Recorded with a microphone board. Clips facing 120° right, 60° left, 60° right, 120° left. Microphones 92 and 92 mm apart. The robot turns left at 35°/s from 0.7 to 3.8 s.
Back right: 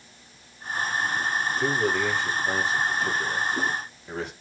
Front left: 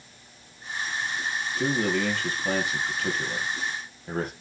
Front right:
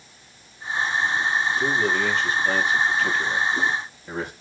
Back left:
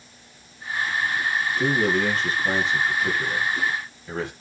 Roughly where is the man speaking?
Left.